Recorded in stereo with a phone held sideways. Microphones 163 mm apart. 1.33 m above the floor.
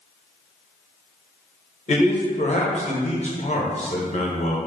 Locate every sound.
1.9 s a man speaking: 45° left (ahead or behind), 1.0 m